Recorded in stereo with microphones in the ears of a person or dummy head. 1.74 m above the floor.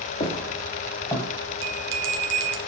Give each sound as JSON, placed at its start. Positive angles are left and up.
{"t": 0.2, "sound": "footsteps", "side_deg": 35, "distance_m": 2.5}
{"t": 1.6, "sound": "a bell", "side_deg": -70, "distance_m": 1.1}